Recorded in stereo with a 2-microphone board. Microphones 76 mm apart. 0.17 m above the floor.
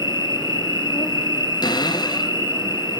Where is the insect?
70° left (ahead or behind), 1.9 m.